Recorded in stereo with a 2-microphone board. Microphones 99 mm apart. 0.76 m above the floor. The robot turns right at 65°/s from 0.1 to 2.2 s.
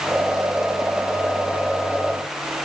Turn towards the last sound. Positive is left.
No sound to turn to.